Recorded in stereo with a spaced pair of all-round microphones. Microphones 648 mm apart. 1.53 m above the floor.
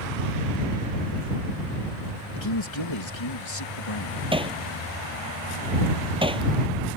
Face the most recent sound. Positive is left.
turn(degrees=-10)  # may be behind; listen again after turning